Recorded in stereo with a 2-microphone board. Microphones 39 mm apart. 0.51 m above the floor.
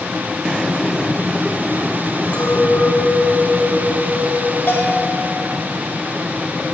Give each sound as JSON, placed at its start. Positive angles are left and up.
{"t": 2.3, "sound": "a clink", "side_deg": 30, "distance_m": 1.8}
{"t": 4.7, "sound": "a bell", "side_deg": 65, "distance_m": 1.6}